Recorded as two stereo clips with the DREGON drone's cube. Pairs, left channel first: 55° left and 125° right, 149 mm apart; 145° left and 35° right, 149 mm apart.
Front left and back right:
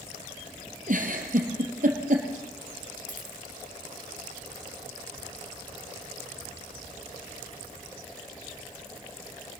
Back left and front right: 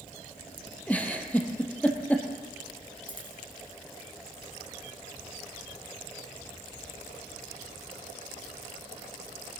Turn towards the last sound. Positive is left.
turn(degrees=20)